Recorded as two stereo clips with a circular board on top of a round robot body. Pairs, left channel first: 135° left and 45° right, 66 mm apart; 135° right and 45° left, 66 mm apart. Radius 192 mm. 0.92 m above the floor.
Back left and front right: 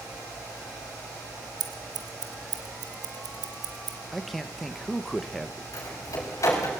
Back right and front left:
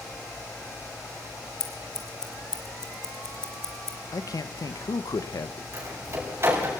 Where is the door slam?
95° left, 5.5 m.